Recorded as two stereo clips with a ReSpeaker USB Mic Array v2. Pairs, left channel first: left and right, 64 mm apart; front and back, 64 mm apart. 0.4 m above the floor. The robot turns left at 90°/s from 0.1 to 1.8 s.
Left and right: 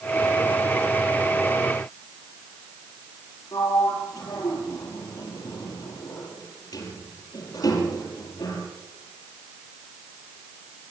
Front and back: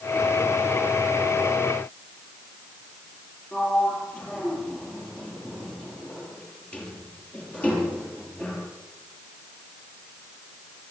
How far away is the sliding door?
About 6.5 m.